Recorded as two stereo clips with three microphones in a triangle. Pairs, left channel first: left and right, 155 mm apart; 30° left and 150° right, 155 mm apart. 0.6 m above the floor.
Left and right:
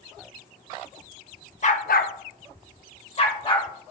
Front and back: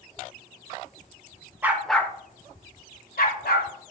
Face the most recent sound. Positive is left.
turn(degrees=35)